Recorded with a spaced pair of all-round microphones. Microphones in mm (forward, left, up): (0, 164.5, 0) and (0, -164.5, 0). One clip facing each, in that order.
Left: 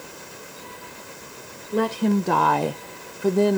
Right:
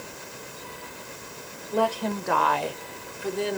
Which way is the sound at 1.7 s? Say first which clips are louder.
Left 6 dB; 25° left (ahead or behind).